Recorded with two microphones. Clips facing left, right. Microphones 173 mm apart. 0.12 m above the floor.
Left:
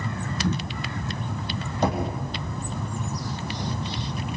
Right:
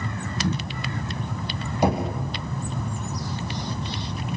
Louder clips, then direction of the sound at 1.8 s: Right 2 dB; 10° right (ahead or behind).